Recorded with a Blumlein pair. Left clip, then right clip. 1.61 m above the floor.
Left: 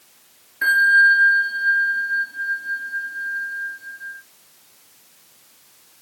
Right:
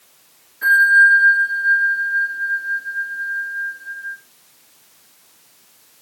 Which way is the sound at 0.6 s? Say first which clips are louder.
Right 3 dB; 60° left.